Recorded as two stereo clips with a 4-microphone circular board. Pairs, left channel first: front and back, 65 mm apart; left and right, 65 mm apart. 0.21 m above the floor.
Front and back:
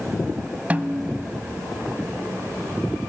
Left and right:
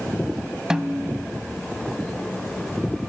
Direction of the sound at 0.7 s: 155° right.